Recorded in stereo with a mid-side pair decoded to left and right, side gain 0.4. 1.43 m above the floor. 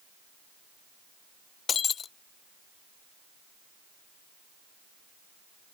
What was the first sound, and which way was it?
Breaking glass, 55° left.